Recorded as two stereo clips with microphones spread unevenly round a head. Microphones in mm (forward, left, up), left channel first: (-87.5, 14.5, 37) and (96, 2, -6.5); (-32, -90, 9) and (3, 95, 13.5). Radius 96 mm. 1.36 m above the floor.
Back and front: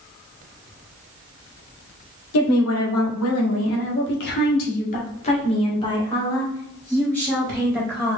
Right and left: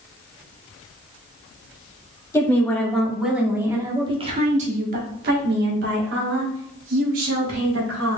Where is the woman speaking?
175° right, 1.7 m; by 8.2 s 85° left, 3 m.